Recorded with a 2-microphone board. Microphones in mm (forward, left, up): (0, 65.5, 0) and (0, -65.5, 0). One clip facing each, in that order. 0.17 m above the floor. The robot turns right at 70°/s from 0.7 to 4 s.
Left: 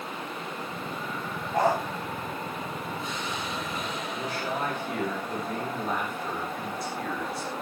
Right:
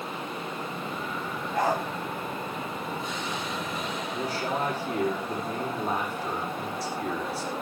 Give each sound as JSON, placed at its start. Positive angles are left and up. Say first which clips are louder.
{"t": 1.5, "sound": "a dog barking", "louder": "left 2 dB", "side_deg": 30, "distance_m": 10.0}
{"t": 4.1, "sound": "a man speaking", "louder": "right 3 dB", "side_deg": -30, "distance_m": 9.0}